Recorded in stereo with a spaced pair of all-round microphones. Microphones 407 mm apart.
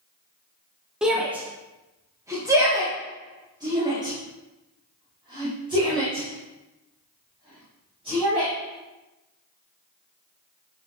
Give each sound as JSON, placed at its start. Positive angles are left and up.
{"t": 1.0, "sound": "a shout", "side_deg": 0, "distance_m": 1.2}